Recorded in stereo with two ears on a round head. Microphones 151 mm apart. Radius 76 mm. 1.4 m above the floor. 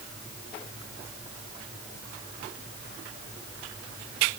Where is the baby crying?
I don't hear a baby crying.